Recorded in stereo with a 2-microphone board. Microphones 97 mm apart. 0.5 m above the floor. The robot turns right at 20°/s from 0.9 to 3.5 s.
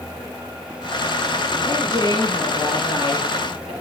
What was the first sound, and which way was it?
A woman speaking, 155° right.